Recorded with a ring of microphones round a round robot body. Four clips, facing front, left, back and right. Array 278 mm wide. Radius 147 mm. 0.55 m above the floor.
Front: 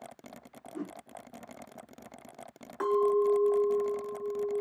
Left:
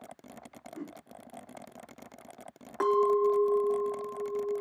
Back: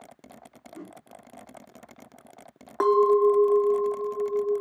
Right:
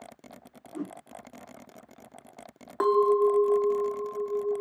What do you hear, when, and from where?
0.7 s a whoosh: 70° right, 3.5 m
2.8 s a clink: 155° right, 1.0 m